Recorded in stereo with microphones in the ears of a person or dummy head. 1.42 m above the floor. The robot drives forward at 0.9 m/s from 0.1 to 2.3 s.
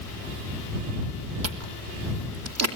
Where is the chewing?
75° right (ahead or behind), 2.5 m; by 2.8 s 85° right, 2.5 m.